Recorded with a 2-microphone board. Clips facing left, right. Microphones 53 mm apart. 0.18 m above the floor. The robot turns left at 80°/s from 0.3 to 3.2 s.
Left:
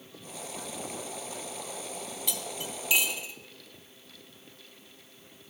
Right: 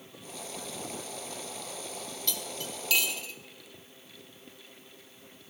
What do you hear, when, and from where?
2.3 s cutlery clinking: 15° left (ahead or behind), 0.6 m